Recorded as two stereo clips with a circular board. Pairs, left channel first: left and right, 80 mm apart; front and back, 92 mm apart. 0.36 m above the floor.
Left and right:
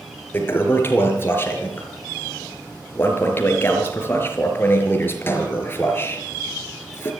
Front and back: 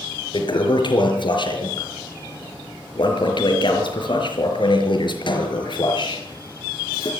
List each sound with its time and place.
0.3 s a toilet flushing: 30° left, 5 m